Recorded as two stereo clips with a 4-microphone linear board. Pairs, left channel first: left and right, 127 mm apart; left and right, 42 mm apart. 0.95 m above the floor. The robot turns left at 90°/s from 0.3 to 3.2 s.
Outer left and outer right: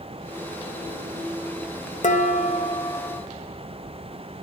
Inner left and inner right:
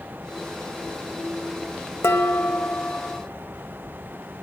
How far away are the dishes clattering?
About 0.5 m.